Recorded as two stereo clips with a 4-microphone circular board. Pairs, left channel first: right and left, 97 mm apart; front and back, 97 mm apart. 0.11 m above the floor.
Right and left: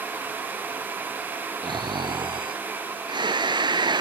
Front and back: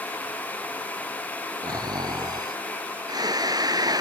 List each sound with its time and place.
1.6 s snoring: 130° left